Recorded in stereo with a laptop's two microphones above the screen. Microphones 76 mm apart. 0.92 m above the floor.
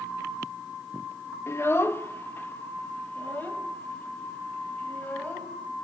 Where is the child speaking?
35° left (ahead or behind), 0.7 m; by 5.5 s 20° left (ahead or behind), 3 m.